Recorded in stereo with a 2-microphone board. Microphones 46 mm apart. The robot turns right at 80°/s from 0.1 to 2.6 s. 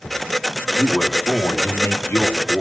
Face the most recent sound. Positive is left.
turn(degrees=140)